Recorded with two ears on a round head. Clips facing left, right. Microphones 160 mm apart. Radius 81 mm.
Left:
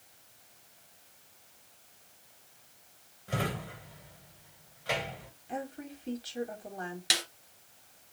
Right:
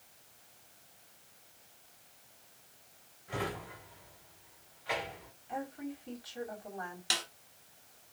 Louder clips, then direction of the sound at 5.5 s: Even; 35° left (ahead or behind).